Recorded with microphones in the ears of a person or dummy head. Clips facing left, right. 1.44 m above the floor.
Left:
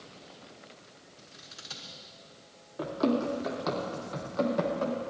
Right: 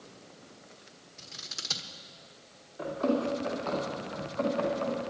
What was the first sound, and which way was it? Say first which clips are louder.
Scissors: right 2 dB; 55° right (ahead or behind).